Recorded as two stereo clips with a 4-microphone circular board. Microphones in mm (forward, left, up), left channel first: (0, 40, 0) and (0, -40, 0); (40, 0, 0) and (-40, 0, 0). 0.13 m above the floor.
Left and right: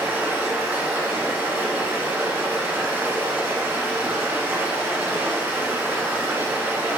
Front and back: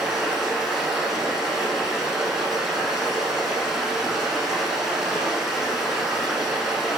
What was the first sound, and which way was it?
Running water, 100° right.